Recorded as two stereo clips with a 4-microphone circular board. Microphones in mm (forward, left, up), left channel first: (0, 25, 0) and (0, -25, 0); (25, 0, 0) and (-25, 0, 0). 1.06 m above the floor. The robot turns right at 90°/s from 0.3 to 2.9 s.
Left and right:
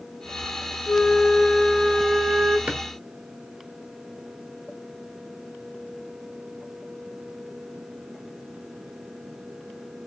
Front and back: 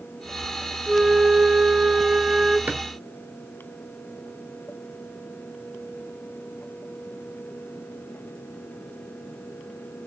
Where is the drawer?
150° right, 0.9 m; by 2.8 s 135° right, 0.9 m.